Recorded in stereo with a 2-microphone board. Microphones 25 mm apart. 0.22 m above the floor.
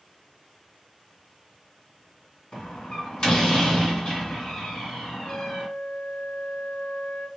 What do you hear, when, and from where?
2.5 s a door slam: 40° left (ahead or behind), 1.7 m
5.2 s a flute: 45° left (ahead or behind), 1.6 m